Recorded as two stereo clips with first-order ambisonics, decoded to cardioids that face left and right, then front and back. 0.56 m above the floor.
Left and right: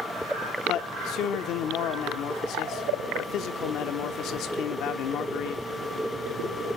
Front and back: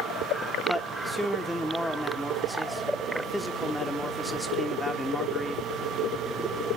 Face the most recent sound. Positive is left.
turn(degrees=85)